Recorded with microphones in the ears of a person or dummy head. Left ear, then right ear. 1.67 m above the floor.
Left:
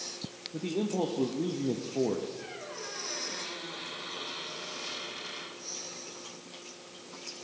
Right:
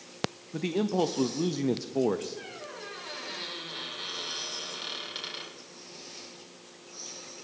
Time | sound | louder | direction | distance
0.5 | a man speaking | right 3 dB | 60° right (ahead or behind) | 0.7 m
2.4 | a squeak | even | 50° right (ahead or behind) | 4 m